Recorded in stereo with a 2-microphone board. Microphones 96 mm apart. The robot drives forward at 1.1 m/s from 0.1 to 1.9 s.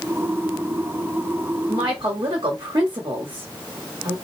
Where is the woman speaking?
55° right (ahead or behind), 1.4 m; by 4.2 s 60° right (ahead or behind), 1.4 m.